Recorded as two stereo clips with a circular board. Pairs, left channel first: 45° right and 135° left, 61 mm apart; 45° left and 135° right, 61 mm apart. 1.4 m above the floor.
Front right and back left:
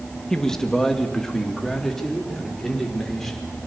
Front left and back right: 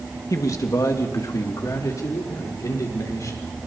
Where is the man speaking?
35° left, 2 m; by 3.5 s 40° left, 6 m.